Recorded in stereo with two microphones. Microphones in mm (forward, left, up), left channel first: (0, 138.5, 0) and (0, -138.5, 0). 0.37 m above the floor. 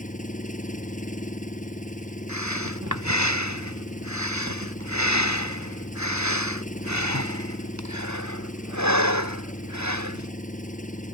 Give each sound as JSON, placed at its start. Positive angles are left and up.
{"t": 0.0, "sound": "an engine running", "side_deg": 30}
{"t": 2.3, "sound": "breathing", "side_deg": -80}